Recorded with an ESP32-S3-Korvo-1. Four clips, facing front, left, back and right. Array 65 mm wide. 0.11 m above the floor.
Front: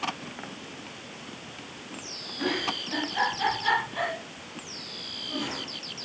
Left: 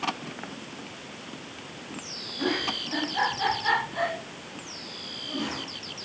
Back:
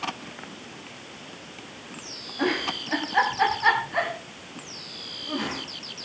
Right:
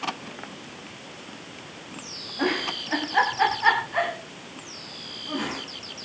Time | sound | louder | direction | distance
2.4 | a giggle | right 2 dB, back 3 dB | 135° right | 6.5 m